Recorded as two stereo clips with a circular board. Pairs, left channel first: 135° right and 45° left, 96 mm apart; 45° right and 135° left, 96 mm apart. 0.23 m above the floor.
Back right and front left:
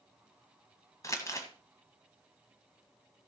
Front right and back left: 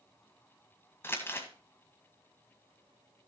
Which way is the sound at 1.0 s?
100° right.